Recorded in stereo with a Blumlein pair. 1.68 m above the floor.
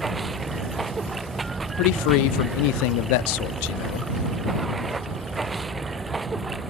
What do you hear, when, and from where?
0.0 s running water: 10° right
1.8 s a man speaking: 45° left